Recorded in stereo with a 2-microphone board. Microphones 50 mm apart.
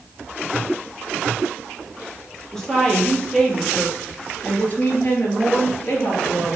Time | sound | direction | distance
2.5 | a woman speaking | 10° left (ahead or behind) | 3 m